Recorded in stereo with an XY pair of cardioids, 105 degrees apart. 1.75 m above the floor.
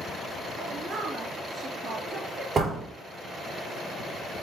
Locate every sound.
0.6 s a woman speaking: 35° right, 3.5 m
2.5 s a door slam: 35° right, 4 m